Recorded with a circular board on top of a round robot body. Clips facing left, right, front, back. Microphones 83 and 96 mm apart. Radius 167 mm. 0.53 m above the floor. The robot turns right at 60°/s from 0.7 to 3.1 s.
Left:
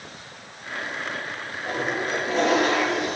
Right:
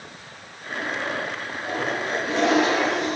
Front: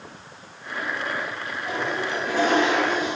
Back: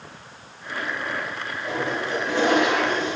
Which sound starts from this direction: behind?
A toilet flushing, at 1.6 s.